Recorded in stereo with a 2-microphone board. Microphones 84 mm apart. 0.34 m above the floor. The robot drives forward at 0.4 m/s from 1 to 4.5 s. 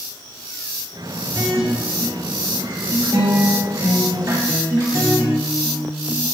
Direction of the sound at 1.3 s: 50° right (ahead or behind).